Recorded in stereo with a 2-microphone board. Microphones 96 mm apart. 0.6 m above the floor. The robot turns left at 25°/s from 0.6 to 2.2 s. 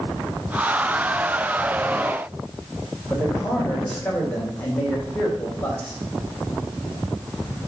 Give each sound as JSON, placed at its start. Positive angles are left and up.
{"t": 3.1, "sound": "a man speaking", "side_deg": 15, "distance_m": 3.5}